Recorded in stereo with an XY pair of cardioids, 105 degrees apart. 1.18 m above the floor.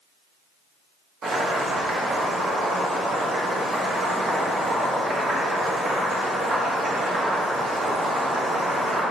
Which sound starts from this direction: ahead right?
Boiling, at 1.2 s.